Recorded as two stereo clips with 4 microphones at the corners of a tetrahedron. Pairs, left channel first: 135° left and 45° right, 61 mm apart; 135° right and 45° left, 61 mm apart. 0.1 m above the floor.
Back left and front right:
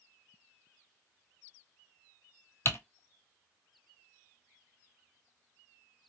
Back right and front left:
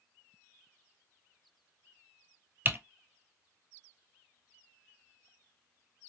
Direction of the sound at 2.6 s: 95° left.